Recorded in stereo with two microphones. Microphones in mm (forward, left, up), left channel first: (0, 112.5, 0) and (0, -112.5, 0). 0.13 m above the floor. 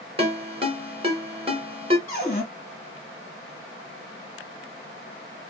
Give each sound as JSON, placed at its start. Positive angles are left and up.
{"t": 0.2, "sound": "a ringtone", "side_deg": -25, "distance_m": 1.2}
{"t": 2.1, "sound": "a cupboard door", "side_deg": 40, "distance_m": 1.4}